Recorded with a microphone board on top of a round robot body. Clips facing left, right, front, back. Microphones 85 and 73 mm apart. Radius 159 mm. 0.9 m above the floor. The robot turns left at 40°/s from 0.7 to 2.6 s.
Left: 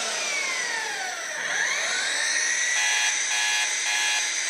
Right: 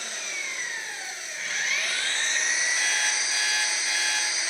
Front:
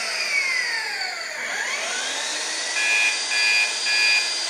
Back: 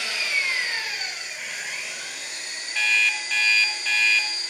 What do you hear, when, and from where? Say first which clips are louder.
0.0 s an engine running: left 6 dB, front 1 dB; 70° left, 0.8 m; by 4.5 s 5° right, 0.8 m
2.8 s an alarm clock: left 1 dB, back 1 dB; 80° left, 1.1 m